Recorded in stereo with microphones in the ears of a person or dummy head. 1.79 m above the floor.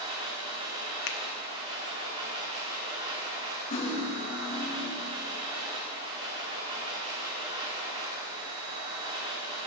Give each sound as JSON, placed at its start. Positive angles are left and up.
{"t": 0.0, "sound": "a machine running", "side_deg": -30, "distance_m": 2.5}
{"t": 1.1, "sound": "a finger snap", "side_deg": 60, "distance_m": 0.7}
{"t": 3.7, "sound": "cutlery clinking", "side_deg": 40, "distance_m": 1.6}